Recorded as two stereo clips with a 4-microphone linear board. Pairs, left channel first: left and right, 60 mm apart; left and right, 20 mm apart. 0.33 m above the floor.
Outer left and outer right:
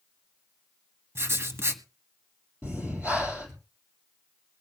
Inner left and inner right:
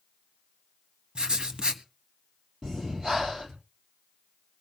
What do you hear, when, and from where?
1.1 s writing: 45° right (ahead or behind), 1.1 m
2.6 s breathing: 30° right (ahead or behind), 3.5 m